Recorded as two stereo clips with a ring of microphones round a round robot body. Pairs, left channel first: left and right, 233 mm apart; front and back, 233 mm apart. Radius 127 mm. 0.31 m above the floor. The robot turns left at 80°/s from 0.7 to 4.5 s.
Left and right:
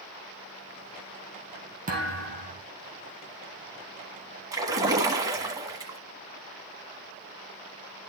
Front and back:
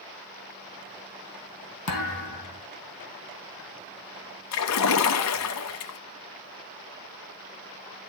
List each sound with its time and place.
1.9 s a thud: 30° right, 2 m; by 2.6 s 90° right, 2 m
4.5 s a splash: 15° right, 1.6 m